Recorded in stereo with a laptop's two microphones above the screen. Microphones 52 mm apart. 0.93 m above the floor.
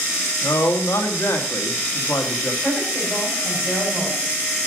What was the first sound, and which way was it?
A man speaking, 65° left (ahead or behind).